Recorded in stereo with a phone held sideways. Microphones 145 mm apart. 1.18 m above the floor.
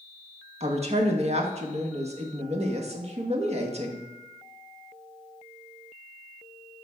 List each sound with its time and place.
0.6 s a woman speaking: 50° right (ahead or behind), 1.3 m